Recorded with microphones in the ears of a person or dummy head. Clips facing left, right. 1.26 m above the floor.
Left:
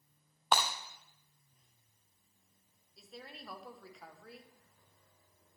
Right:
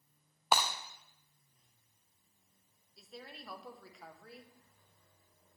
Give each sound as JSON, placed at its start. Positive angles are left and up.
{"t": 0.5, "sound": "breaking glass", "side_deg": -5, "distance_m": 0.5}
{"t": 3.0, "sound": "a woman speaking", "side_deg": 0, "distance_m": 0.9}